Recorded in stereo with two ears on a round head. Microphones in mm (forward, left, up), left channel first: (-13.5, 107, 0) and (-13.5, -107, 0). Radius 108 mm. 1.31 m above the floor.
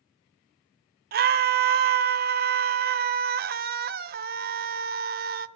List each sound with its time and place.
1.1 s a scream: 40° right (ahead or behind), 0.6 m